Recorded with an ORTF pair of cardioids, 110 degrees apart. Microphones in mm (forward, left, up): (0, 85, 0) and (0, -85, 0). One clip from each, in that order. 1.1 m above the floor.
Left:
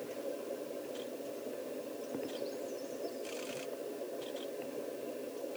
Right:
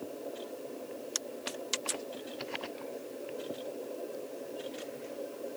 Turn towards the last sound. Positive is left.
No sound to turn to.